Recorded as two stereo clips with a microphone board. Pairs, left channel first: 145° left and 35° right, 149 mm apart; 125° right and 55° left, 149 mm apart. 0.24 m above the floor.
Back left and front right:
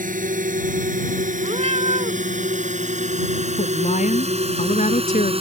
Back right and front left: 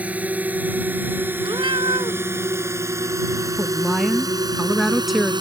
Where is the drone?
25° right; by 5.4 s 5° left.